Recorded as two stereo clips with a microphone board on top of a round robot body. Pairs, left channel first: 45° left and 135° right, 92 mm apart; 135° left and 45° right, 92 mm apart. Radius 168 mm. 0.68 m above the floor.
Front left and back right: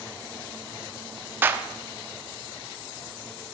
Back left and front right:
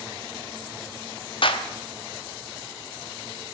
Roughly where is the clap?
Behind.